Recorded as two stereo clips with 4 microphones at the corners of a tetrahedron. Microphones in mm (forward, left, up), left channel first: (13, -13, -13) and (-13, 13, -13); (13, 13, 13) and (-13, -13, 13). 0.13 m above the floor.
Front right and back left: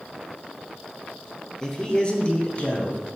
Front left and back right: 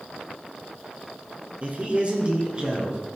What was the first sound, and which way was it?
A man speaking, 110° right.